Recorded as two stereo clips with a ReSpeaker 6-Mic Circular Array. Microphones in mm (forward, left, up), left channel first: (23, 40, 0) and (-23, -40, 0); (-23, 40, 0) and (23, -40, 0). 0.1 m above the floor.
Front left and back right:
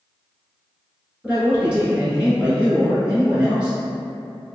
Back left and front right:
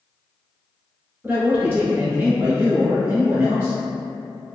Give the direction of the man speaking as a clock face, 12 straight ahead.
2 o'clock.